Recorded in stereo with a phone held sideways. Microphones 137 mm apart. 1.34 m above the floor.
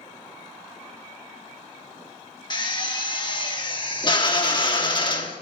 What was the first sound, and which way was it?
A drill, 35° left (ahead or behind).